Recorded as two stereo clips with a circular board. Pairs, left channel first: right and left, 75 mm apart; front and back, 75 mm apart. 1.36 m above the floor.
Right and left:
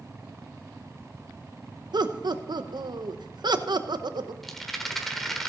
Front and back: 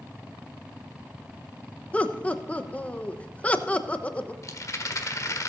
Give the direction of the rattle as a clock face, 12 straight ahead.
12 o'clock.